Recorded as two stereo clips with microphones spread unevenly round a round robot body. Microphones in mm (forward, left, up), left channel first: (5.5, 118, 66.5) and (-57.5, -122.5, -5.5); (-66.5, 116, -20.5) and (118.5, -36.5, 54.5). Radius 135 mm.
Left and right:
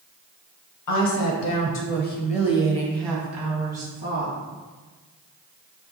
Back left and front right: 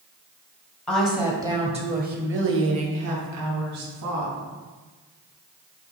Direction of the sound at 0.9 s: 65° left.